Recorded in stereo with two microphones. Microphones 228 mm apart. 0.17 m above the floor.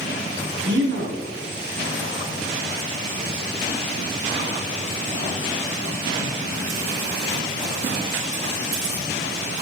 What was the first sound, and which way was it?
A man speaking, 50° right (ahead or behind).